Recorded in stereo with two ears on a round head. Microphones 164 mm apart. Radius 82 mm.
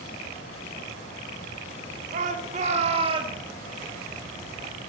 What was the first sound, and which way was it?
A shout, 45° right (ahead or behind).